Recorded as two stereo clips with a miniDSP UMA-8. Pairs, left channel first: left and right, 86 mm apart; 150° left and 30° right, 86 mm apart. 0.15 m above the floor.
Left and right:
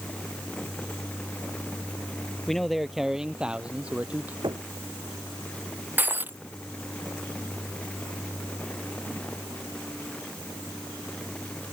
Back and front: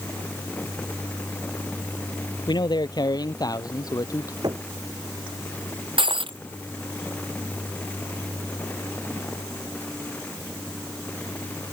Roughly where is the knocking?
Ahead right.